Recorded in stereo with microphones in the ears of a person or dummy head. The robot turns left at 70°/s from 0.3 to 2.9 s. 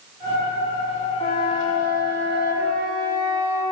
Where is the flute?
140° left, 1.6 m; by 3.6 s 20° left, 1.6 m.